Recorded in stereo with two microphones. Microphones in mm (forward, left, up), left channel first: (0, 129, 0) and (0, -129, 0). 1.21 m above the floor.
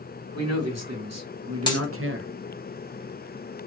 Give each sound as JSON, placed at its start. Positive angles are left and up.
{"t": 0.3, "sound": "a man speaking", "side_deg": -80, "distance_m": 1.5}
{"t": 1.7, "sound": "a dropped coin", "side_deg": 15, "distance_m": 1.0}